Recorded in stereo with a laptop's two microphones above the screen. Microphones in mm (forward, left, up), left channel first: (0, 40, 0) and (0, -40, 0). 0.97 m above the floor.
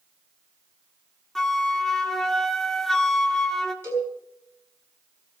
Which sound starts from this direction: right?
A cowbell, at 3.8 s.